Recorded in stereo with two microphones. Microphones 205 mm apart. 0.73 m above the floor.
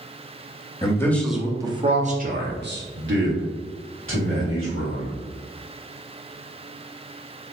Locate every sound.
0.8 s a man speaking: 20° left (ahead or behind), 1.0 m; by 5.2 s 80° right, 2.5 m